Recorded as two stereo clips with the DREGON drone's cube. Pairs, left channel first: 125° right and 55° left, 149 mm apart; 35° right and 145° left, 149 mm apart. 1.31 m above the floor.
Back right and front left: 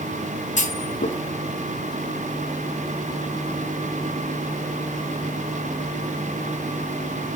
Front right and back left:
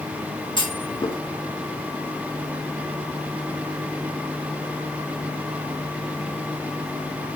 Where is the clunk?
90° right, 2 m.